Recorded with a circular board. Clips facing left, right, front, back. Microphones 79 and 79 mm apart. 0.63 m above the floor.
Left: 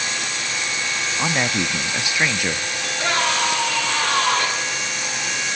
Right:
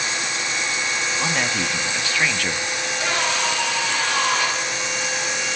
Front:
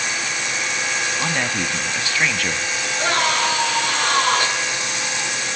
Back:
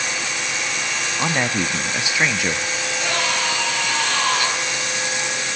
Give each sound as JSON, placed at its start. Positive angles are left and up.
{"t": 1.2, "sound": "a man speaking", "azimuth_deg": 135, "distance_m": 0.5}
{"t": 2.8, "sound": "a scream", "azimuth_deg": 50, "distance_m": 7.5}